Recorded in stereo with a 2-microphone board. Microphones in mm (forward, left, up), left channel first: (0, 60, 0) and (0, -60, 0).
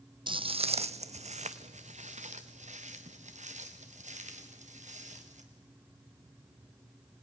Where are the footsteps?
45° right (ahead or behind), 0.5 m; by 5.4 s 85° right, 3.5 m.